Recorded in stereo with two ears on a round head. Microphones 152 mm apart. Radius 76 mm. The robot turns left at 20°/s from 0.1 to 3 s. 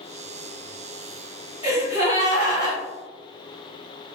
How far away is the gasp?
About 1.9 m.